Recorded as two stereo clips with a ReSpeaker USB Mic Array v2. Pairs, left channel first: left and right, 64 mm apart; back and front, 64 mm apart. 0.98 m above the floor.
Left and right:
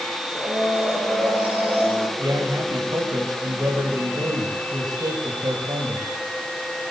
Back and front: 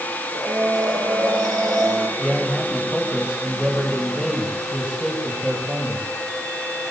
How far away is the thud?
I don't hear a thud.